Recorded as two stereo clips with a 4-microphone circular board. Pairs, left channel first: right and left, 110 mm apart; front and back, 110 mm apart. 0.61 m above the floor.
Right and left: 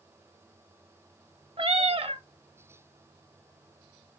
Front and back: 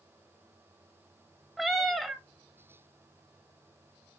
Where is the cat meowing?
90° left, 0.6 m.